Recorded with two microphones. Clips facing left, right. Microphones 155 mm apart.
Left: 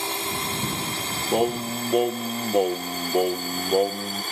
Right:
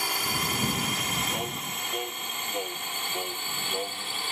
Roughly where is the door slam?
I don't hear a door slam.